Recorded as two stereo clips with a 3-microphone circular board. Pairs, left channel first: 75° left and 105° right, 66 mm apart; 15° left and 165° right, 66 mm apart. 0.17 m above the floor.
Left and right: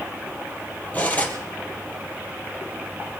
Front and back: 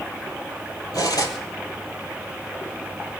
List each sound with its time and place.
0.9 s cutlery clinking: 10° left, 3 m